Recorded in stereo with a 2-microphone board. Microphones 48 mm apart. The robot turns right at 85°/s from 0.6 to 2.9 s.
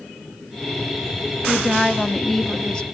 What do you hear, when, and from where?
1.5 s a woman speaking: 10° right (ahead or behind), 0.9 m; by 2.9 s 20° left (ahead or behind), 0.9 m